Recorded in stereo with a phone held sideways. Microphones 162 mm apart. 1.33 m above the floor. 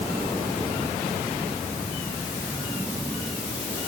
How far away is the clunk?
I don't hear a clunk.